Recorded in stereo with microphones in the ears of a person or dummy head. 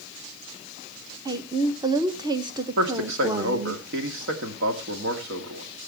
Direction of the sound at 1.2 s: 10° right (ahead or behind).